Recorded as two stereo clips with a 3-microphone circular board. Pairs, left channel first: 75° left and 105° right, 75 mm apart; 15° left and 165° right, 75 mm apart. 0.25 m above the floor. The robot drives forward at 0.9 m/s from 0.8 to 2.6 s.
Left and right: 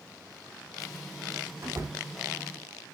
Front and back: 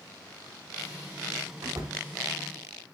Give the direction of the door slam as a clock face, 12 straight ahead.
5 o'clock.